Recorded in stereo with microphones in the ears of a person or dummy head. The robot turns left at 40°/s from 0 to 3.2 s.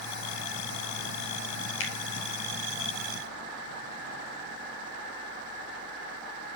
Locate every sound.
1.8 s a finger snap: 75° left (ahead or behind), 1.6 m; by 1.9 s 70° left (ahead or behind), 1.6 m